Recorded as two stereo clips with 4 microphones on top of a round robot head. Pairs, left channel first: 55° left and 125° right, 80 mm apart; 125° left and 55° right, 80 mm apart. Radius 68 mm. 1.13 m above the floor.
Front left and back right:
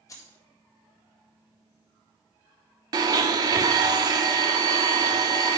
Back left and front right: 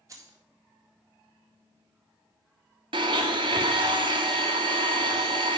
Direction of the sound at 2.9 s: 85° right.